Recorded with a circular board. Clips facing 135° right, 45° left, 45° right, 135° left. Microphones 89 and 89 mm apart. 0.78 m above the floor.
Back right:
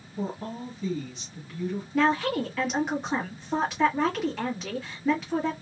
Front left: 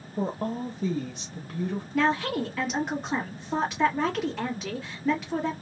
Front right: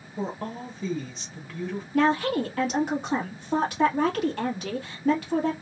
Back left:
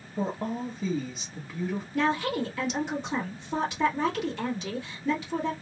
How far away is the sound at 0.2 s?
About 0.8 m.